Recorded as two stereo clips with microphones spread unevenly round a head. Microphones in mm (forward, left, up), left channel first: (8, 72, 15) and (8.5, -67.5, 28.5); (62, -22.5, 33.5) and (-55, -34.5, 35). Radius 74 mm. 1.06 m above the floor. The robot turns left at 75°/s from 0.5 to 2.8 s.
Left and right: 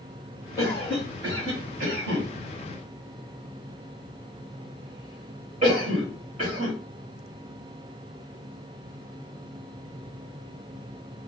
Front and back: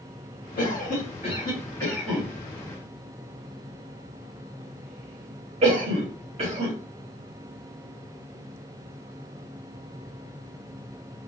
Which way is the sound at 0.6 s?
30° left.